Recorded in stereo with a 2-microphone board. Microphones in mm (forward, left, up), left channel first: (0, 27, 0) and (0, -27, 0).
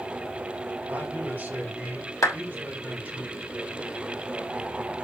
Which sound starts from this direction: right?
A man speaking, at 0.9 s.